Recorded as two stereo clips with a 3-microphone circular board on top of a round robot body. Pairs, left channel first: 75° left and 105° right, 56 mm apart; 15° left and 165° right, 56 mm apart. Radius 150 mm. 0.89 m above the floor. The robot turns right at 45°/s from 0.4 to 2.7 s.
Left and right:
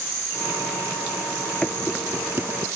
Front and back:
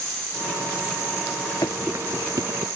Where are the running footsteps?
5° left; by 2.7 s 150° right.